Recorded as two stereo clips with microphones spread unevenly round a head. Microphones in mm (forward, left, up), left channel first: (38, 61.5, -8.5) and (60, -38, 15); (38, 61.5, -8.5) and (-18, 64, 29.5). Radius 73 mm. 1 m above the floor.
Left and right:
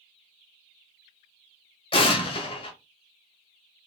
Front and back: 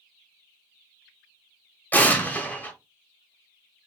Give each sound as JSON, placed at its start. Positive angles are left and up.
{"t": 1.9, "sound": "an explosion", "azimuth_deg": 95, "distance_m": 0.9}